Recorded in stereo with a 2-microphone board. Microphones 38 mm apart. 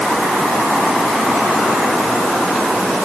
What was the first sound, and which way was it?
Only background noise.